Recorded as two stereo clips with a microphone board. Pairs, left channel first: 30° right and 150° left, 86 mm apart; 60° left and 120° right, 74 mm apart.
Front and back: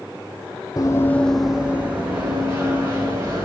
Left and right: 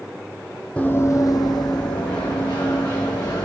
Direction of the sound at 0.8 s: 5° right.